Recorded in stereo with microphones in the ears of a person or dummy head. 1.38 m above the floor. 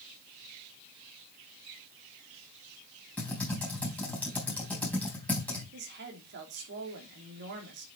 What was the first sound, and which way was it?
Typing on a keyboard, 10° left (ahead or behind).